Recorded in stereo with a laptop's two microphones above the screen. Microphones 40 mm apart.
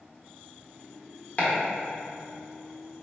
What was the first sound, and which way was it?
Chopping, 40° left (ahead or behind).